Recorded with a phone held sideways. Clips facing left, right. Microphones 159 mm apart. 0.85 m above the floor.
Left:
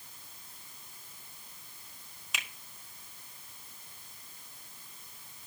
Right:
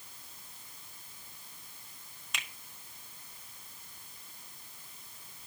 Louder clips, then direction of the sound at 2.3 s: Left 1 dB; 5° left (ahead or behind).